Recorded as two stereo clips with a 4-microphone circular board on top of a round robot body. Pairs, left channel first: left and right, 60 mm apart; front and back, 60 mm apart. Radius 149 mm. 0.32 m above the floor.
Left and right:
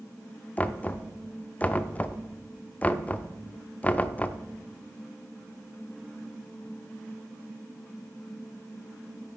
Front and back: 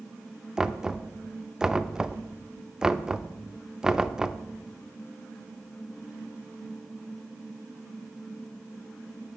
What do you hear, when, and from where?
0.6 s knocking: 115° left, 0.9 m